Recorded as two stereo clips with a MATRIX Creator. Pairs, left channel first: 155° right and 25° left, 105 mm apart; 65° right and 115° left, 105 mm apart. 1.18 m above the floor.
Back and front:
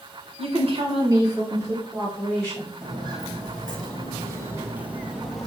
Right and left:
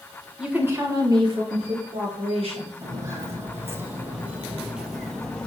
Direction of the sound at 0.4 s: 30° left.